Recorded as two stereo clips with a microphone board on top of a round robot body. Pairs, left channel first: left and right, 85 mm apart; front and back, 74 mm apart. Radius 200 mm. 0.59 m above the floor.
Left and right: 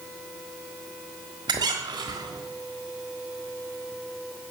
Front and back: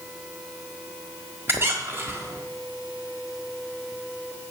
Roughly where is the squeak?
Behind right.